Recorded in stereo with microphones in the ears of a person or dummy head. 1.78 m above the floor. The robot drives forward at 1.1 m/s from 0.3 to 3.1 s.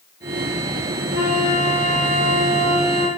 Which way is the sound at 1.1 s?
60° right (ahead or behind).